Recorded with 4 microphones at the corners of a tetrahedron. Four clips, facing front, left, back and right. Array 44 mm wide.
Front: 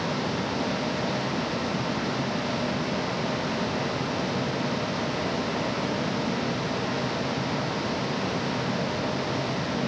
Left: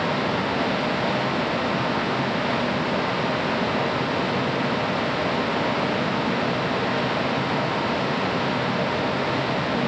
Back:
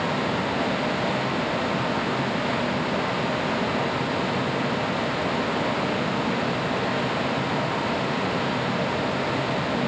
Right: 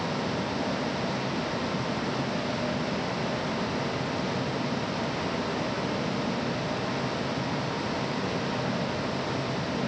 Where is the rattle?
No rattle in this recording.